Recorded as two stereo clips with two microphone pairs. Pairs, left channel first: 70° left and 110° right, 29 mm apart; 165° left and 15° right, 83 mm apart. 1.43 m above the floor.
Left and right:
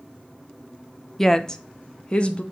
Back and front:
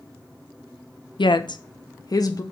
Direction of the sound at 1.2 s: 145° left.